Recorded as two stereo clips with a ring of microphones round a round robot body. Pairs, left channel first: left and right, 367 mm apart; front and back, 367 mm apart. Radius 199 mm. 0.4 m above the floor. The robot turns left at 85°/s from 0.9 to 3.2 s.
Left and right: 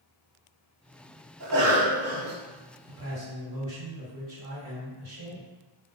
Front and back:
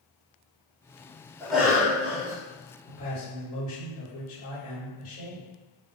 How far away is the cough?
About 1.0 m.